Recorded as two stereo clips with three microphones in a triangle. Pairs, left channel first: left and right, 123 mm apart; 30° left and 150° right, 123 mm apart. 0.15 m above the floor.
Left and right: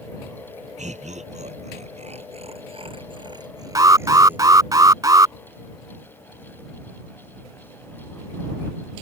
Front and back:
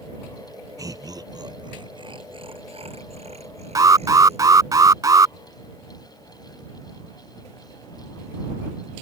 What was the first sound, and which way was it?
Laughter, 90° right.